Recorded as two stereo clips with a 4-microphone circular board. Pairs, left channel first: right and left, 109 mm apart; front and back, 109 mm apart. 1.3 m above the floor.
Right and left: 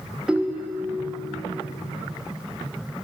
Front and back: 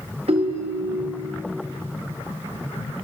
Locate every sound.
0.3 s a ringtone: 170° left, 1.0 m